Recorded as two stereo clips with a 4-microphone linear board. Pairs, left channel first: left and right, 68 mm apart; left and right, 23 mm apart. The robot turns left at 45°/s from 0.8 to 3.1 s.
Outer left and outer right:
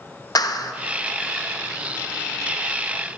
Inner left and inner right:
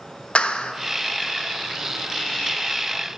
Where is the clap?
70° left (ahead or behind), 0.8 m.